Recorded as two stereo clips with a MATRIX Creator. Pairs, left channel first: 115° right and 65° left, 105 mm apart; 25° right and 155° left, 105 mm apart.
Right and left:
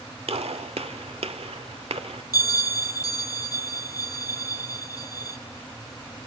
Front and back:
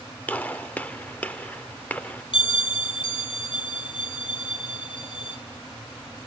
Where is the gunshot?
55° left, 1.2 m.